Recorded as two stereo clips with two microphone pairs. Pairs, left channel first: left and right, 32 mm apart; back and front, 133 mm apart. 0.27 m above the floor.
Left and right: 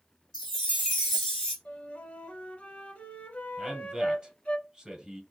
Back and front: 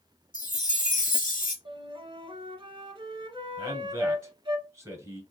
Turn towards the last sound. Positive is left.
turn(degrees=-45)